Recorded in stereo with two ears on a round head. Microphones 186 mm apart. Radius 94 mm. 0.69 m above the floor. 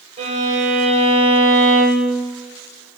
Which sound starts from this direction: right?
A violin, at 0.2 s.